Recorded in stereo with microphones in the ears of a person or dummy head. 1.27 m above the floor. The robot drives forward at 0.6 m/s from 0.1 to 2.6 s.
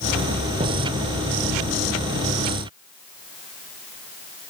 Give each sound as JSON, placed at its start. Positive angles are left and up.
{"t": 0.6, "sound": "an explosion", "side_deg": -30}